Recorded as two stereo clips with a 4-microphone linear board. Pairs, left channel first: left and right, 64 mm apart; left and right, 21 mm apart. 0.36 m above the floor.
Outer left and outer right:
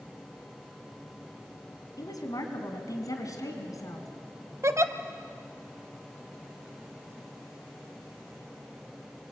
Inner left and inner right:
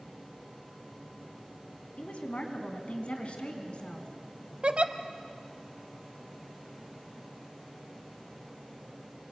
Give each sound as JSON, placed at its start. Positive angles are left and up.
{"t": 2.0, "sound": "a woman speaking", "side_deg": 70, "distance_m": 3.0}
{"t": 4.6, "sound": "a giggle", "side_deg": -50, "distance_m": 1.0}